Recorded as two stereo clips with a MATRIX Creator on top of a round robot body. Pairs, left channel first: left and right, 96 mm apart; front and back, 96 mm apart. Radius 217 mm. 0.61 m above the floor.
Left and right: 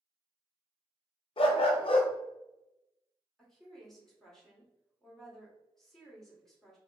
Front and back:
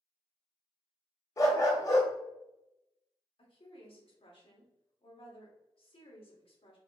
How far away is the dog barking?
About 0.5 m.